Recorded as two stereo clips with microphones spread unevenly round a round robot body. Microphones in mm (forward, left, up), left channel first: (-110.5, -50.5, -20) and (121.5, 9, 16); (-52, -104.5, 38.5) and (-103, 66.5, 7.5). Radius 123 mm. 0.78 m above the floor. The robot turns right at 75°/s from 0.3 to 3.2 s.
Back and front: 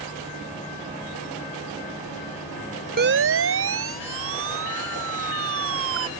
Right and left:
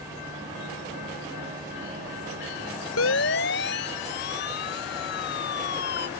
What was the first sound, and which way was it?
A siren, 40° right.